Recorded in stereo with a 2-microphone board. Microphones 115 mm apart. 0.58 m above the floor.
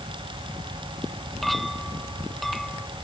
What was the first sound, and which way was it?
A clink, centre (ahead or behind).